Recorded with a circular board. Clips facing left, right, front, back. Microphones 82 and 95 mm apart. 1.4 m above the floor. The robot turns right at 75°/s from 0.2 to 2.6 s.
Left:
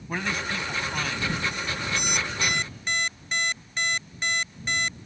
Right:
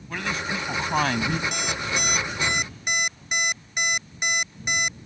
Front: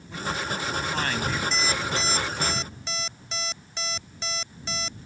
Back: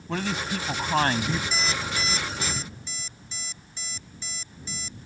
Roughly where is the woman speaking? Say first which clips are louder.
Right 1 dB, back 2 dB; behind.